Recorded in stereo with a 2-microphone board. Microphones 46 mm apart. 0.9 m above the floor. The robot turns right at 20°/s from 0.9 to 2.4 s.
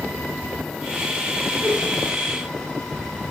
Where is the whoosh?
30° left (ahead or behind), 1.1 m; by 1.8 s 35° left (ahead or behind), 1.1 m.